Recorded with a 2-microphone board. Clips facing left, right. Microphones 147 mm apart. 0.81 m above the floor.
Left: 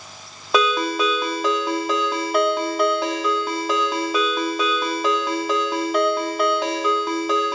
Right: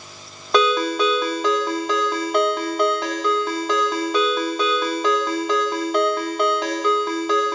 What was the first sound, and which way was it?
A ringtone, 5° left (ahead or behind).